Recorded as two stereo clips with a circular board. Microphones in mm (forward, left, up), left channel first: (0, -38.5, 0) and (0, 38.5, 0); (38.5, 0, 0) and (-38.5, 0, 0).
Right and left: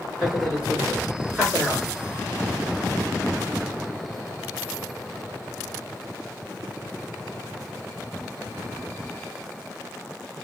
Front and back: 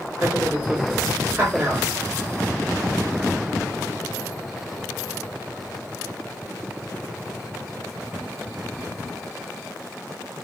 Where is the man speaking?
165° left, 1.7 m.